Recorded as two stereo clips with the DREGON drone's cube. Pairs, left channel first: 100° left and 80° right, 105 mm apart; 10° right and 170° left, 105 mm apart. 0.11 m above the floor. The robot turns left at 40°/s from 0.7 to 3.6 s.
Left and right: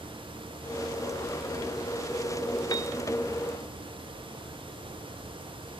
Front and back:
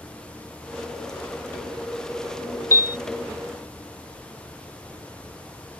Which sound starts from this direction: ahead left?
A piano, at 2.7 s.